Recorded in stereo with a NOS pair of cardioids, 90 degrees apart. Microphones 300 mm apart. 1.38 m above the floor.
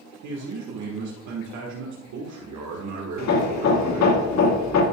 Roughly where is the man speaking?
Right.